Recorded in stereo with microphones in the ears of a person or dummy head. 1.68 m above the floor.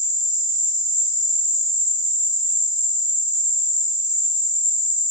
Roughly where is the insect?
Right.